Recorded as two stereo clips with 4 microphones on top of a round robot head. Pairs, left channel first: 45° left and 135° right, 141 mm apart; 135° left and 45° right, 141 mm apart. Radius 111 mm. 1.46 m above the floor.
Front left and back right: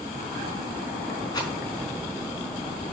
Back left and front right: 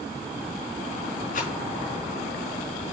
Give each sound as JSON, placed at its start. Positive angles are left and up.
{"t": 1.3, "sound": "a rattle", "azimuth_deg": 105, "distance_m": 4.0}